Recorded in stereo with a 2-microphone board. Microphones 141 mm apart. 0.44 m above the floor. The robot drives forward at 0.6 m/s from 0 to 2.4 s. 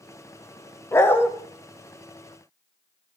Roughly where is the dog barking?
Centre.